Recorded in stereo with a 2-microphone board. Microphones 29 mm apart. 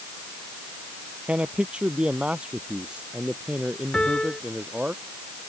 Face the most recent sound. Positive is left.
turn(degrees=30)  # may be behind; listen again after turning